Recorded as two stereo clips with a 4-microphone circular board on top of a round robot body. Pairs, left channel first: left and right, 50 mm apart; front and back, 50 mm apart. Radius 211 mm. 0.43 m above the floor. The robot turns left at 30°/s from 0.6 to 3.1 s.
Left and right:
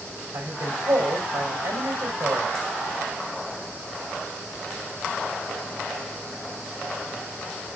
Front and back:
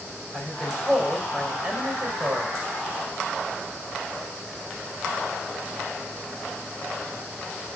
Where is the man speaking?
75° right, 3.5 m; by 2.5 s 135° right, 3.5 m.